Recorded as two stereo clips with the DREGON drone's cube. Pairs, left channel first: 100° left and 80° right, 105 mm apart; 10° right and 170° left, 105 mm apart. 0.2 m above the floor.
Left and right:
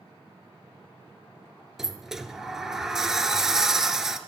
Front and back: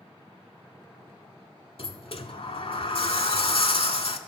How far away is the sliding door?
About 0.6 m.